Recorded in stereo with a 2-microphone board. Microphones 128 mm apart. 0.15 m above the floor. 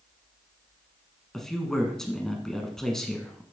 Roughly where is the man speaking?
Centre.